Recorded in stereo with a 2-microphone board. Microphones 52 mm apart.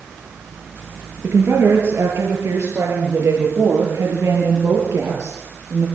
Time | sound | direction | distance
1.2 | a woman speaking | 60° right (ahead or behind) | 7.5 m